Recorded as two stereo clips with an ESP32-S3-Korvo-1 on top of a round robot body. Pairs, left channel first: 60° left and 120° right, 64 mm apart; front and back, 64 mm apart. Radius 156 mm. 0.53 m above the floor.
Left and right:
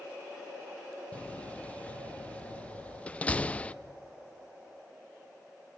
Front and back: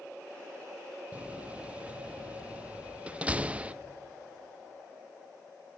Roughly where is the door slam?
Behind left.